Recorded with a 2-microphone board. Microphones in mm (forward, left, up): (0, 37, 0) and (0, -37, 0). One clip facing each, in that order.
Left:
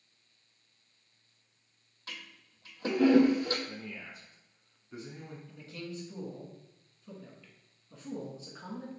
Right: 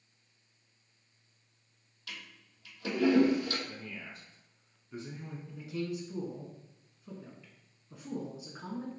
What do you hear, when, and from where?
2.1 s a toilet flushing: 35° left (ahead or behind), 0.9 m
3.7 s a man speaking: 10° left (ahead or behind), 1.0 m
5.5 s a man speaking: 15° right (ahead or behind), 1.1 m